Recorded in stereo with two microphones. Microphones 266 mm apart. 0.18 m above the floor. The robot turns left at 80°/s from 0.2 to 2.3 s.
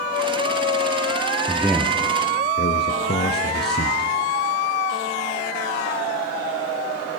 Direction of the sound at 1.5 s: 160° right.